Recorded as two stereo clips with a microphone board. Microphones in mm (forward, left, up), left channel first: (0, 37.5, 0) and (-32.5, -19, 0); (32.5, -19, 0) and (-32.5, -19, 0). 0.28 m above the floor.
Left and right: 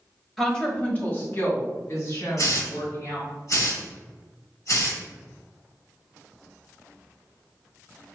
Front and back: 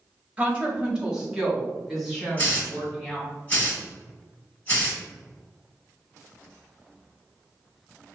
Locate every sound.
0.4 s a woman speaking: 140° left, 1.1 m; by 3.3 s 90° left, 3 m
2.4 s a hiss: 60° left, 2 m